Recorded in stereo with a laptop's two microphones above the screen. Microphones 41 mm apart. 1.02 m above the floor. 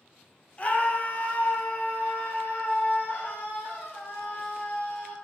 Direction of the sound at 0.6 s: 30° left (ahead or behind).